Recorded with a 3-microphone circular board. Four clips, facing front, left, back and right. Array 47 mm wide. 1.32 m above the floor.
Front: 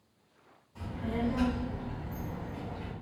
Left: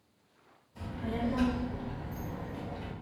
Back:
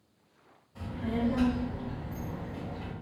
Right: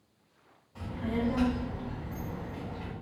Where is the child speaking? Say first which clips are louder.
Right 3 dB, back 2 dB; 105° right, 1.4 m.